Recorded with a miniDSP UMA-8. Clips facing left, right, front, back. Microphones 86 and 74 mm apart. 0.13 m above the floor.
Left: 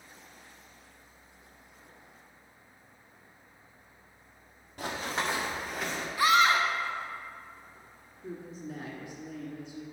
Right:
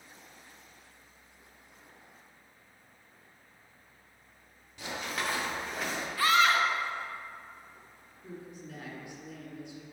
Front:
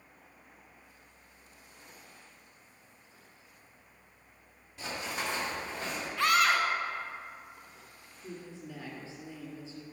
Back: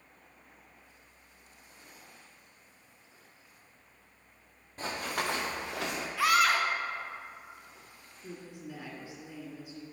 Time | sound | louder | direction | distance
4.8 | running footsteps | left 3 dB, back 3 dB | 135° left | 2 m
6.2 | a scream | left 1 dB, even | 105° left | 1.0 m
8.2 | a woman speaking | left 4 dB, even | 120° left | 1.4 m